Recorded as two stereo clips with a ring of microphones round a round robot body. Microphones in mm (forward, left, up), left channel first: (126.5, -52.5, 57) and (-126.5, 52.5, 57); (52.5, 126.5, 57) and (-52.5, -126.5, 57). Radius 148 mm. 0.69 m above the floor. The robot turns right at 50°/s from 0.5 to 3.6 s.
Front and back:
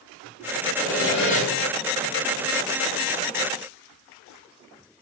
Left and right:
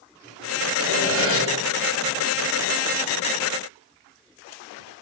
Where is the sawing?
105° right, 2.5 m; by 1.4 s 75° right, 2.5 m.